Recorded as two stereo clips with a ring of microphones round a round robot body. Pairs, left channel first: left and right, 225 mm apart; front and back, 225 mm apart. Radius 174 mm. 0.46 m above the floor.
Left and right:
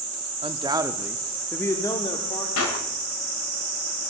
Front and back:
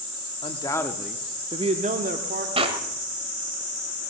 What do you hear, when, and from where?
0.4 s a man speaking: 45° right, 1.2 m; by 2.5 s 150° left, 1.5 m
2.6 s a clap: 115° left, 2.5 m